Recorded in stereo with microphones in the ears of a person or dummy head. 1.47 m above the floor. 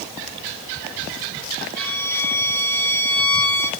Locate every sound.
1.8 s a violin: 75° left (ahead or behind), 6 m